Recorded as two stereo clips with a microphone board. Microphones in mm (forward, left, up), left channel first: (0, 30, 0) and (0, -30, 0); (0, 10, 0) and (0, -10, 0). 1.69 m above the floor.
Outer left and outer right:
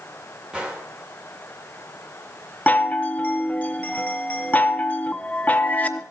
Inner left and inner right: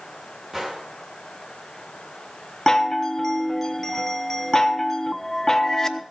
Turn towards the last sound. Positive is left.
turn(degrees=25)  # may be behind; listen again after turning